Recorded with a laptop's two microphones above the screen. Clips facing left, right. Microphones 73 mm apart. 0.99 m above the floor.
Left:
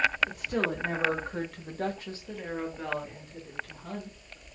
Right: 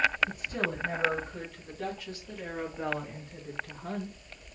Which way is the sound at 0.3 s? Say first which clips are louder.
Left 3 dB; 75° left (ahead or behind).